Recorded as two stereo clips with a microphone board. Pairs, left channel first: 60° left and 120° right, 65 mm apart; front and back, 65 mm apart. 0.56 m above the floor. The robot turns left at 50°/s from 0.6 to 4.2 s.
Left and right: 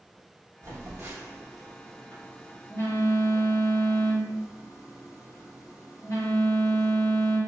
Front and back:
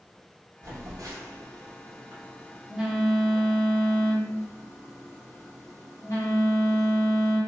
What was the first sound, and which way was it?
A phone buzzing, 150° right.